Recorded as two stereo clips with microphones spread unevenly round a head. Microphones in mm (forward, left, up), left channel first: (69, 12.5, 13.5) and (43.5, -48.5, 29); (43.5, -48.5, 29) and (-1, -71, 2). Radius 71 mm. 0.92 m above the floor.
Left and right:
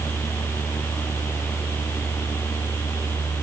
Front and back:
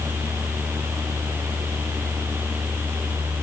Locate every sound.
Only background noise.